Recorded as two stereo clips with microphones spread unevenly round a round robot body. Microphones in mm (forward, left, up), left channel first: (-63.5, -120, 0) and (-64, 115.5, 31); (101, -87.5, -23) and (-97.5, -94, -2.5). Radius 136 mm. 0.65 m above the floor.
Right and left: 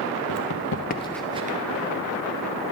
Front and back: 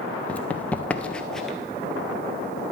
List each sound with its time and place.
0.3 s running footsteps: 85° right, 1.2 m; by 1.6 s 100° left, 0.8 m